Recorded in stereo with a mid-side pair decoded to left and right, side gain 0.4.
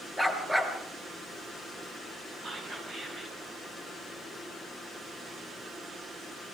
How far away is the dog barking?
About 4.5 m.